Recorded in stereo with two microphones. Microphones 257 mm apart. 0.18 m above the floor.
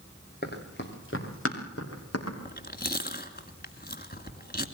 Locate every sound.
0.4 s running footsteps: 35° left (ahead or behind), 4.5 m; by 2.4 s 65° left (ahead or behind), 6 m
2.5 s chewing: 35° left (ahead or behind), 1.6 m